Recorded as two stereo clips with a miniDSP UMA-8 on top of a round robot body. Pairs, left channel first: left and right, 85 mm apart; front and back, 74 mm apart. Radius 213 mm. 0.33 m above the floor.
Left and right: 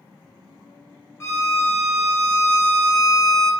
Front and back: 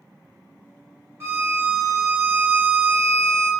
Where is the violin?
140° left, 1.7 m.